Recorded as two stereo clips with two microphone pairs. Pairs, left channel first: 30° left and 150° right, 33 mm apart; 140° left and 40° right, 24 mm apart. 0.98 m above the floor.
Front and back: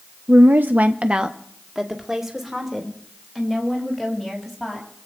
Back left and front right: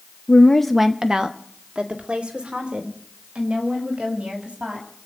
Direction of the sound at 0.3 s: Straight behind.